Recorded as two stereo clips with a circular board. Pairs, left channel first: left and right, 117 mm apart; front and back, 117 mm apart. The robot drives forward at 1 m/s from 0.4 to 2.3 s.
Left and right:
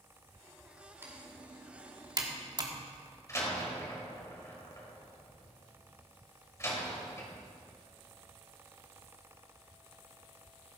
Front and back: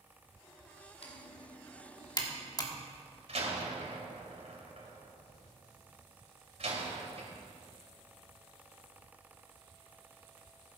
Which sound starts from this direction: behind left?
A door slam, at 3.3 s.